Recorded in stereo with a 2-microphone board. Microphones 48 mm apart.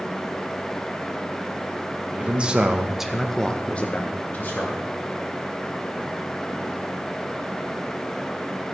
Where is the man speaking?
25° right (ahead or behind), 1.2 m; by 4.8 s 40° left (ahead or behind), 1.3 m.